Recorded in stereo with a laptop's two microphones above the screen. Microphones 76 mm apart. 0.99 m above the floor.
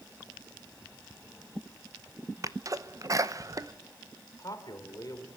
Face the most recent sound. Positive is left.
turn(degrees=50)  # may be behind; listen again after turning